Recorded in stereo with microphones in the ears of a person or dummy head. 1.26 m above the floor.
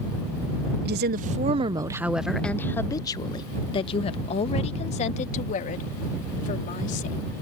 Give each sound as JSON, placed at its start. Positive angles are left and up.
{"t": 0.8, "sound": "a woman speaking", "side_deg": -60}